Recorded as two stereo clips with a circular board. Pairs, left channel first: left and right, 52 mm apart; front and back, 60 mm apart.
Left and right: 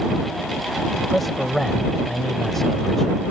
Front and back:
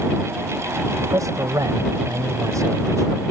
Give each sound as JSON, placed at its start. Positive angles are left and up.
{"t": 1.0, "sound": "a man speaking", "azimuth_deg": 180}